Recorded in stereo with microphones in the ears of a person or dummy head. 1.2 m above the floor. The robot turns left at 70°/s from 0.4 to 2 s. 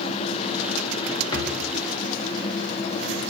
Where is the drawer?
30° left (ahead or behind), 1.0 m; by 1.6 s 45° left (ahead or behind), 1.0 m.